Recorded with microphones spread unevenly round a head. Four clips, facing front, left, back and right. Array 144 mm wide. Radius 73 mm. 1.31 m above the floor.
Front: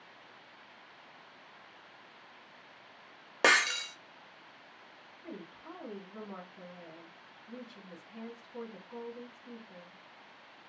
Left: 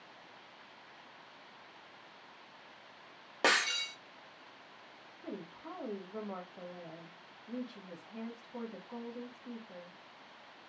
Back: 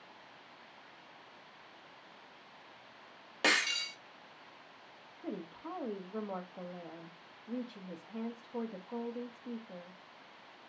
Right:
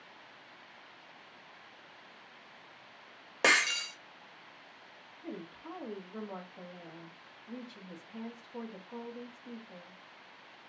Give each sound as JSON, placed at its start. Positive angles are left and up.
{"t": 3.4, "sound": "breaking glass", "azimuth_deg": -10, "distance_m": 0.9}
{"t": 5.2, "sound": "a woman speaking", "azimuth_deg": 170, "distance_m": 0.9}